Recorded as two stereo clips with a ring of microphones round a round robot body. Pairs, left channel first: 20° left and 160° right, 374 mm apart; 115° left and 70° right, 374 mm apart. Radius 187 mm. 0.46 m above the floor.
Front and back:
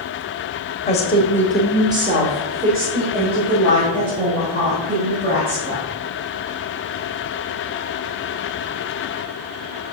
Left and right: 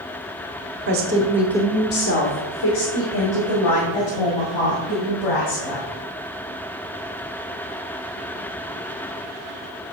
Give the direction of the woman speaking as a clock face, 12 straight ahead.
1 o'clock.